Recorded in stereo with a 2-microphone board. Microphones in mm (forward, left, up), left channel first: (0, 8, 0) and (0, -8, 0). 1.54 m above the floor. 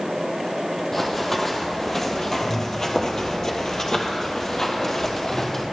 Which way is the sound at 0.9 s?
20° left (ahead or behind).